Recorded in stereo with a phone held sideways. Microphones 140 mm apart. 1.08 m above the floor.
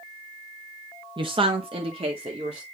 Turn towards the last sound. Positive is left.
turn(degrees=-45)  # may be behind; listen again after turning